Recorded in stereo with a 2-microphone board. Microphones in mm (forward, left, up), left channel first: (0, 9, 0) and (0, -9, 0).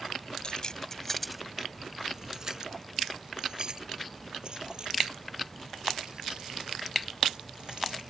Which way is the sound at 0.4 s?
50° left (ahead or behind).